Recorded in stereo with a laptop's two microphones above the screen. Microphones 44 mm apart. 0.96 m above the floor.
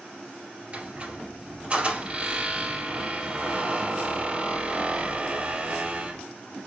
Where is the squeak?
30° right (ahead or behind), 3 m.